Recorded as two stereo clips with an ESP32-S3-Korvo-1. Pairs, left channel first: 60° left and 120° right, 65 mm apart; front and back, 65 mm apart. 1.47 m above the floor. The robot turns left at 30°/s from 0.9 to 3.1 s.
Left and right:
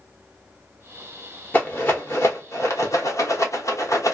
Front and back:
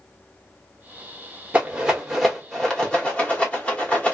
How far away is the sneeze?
I don't hear a sneeze.